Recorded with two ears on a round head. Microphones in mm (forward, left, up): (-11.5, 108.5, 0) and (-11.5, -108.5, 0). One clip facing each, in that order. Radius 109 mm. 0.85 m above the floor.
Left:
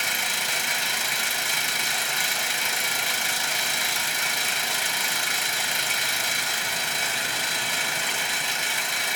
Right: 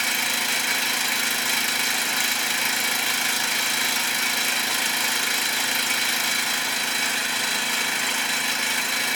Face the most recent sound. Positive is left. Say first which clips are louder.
# right 3 dB
turn(degrees=-65)  # may be behind; listen again after turning